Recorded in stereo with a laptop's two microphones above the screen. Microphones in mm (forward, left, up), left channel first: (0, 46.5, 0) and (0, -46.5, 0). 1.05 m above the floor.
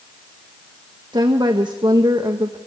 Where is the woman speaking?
55° right (ahead or behind), 1.0 m.